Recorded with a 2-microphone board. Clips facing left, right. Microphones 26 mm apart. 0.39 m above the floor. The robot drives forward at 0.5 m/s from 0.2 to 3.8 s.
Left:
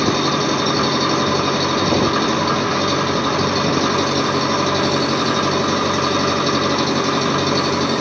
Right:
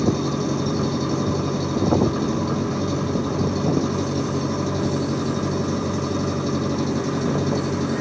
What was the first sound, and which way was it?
An engine running, 55° left (ahead or behind).